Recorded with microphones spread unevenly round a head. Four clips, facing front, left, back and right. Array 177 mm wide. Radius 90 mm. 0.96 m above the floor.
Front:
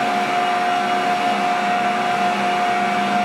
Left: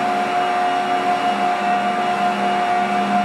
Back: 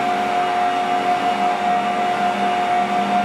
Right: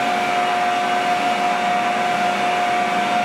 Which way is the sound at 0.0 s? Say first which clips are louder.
Left 1 dB, even; 10° right.